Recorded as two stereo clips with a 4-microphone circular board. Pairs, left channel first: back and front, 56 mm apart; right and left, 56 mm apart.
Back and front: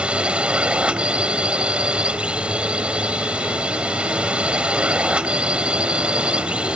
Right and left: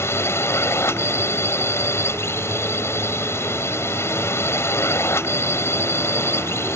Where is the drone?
70° right.